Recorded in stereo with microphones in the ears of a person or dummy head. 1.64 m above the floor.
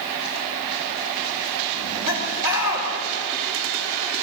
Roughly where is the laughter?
Left.